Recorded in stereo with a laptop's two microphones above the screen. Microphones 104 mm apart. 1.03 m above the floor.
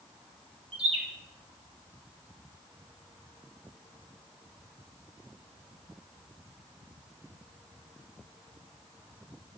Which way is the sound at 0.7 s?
60° right (ahead or behind).